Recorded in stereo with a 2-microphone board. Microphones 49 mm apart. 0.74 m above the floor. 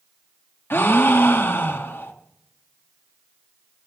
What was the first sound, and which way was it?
A gasp, 50° left (ahead or behind).